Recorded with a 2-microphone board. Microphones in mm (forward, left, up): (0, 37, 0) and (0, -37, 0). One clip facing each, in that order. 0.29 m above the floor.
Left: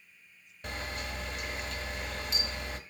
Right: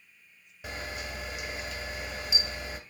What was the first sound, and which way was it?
A camera shutter, 5° right (ahead or behind).